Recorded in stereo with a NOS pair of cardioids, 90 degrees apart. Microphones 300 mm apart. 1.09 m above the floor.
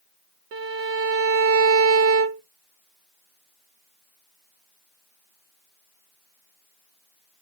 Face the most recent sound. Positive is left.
turn(degrees=-50)